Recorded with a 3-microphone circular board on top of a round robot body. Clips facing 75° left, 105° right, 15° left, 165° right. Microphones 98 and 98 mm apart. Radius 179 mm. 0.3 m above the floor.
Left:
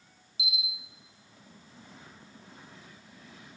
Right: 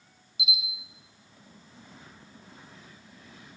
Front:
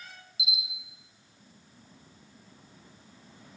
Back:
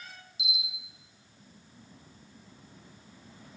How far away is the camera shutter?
About 1.8 m.